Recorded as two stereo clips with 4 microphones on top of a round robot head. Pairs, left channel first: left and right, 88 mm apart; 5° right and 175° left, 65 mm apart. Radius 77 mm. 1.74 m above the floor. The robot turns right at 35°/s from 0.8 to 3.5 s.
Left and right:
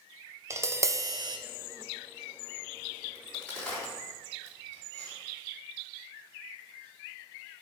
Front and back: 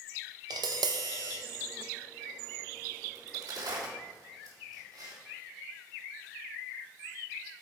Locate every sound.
0.5 s tapping: 150° right, 0.6 m; by 1.4 s 130° right, 0.6 m
3.1 s a crack: 155° left, 3.5 m; by 5.2 s 170° left, 3.5 m